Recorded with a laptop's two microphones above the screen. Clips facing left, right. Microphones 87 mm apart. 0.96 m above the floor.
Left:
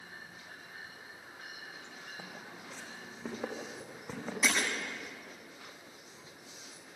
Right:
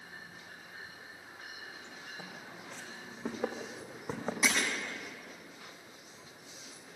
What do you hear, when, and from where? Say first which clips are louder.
2.2 s footsteps: even; 15° left (ahead or behind), 3 m; by 4.3 s 30° right (ahead or behind), 3 m
4.4 s breaking glass: even; 5° right (ahead or behind), 8 m